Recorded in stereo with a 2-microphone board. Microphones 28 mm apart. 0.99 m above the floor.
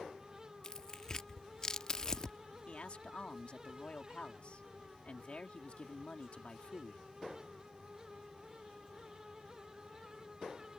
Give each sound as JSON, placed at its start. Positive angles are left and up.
{"t": 0.6, "sound": "tearing paper", "side_deg": 25}
{"t": 2.7, "sound": "a man speaking", "side_deg": 45}